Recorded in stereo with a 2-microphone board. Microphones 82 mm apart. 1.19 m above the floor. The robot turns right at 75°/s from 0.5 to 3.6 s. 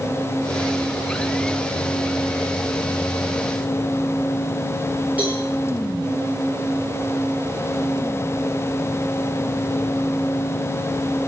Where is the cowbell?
20° right (ahead or behind), 9.5 m.